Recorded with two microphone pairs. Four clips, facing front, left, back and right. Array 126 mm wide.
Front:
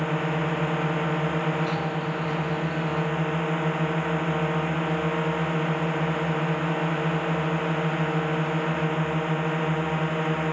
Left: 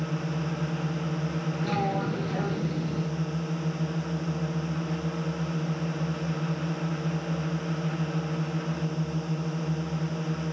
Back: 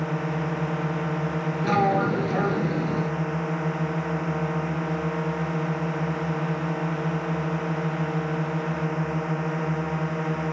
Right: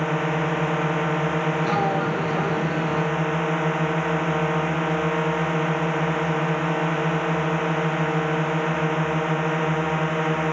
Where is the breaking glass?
I don't hear breaking glass.